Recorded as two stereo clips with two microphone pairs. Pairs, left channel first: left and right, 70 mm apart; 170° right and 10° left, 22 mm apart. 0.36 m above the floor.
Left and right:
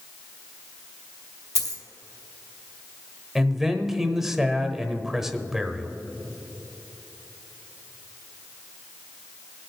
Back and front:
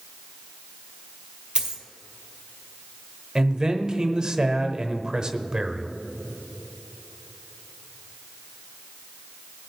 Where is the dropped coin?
65° left, 2.0 m.